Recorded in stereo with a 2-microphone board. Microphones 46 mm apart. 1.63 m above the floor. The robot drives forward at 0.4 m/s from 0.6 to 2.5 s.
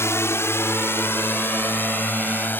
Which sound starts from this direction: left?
A drone, at 0.0 s.